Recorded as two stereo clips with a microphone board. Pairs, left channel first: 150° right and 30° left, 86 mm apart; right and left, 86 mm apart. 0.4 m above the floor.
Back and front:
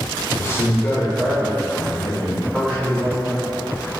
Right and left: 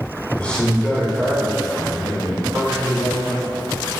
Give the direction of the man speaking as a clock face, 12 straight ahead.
5 o'clock.